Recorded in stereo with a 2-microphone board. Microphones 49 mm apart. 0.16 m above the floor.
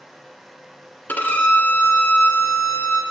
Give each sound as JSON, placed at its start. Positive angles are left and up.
{"t": 1.1, "sound": "a violin", "side_deg": 40, "distance_m": 1.5}